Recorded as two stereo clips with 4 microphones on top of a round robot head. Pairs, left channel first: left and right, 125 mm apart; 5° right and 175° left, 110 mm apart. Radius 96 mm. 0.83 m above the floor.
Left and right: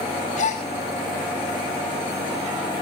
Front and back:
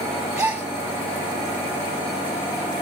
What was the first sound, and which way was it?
A gasp, 100° left.